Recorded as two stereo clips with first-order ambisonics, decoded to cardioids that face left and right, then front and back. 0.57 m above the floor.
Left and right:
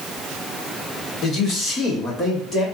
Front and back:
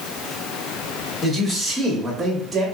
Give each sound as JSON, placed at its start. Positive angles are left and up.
{"t": 1.2, "sound": "a man speaking", "azimuth_deg": 65, "distance_m": 1.6}